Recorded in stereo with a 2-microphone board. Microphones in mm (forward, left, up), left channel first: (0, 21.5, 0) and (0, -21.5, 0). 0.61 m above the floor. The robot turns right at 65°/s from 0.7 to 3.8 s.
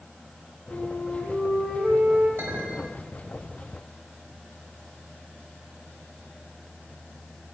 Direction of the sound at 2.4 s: 75° right.